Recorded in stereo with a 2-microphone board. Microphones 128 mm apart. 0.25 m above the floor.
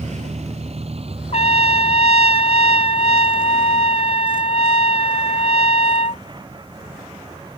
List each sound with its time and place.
0.0 s a vehicle: 65° right (ahead or behind); by 7.6 s 35° right (ahead or behind)
1.3 s a trumpet: 60° left (ahead or behind)